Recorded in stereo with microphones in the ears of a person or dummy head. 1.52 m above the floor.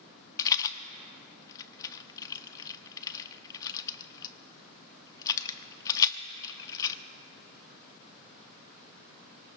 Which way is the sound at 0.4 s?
20° left (ahead or behind).